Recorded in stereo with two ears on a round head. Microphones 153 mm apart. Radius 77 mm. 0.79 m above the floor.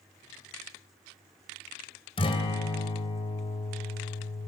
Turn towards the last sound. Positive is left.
turn(degrees=35)  # may be behind; listen again after turning